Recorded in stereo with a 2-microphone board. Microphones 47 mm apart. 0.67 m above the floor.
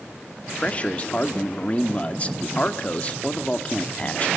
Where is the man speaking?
30° left (ahead or behind), 1.4 m.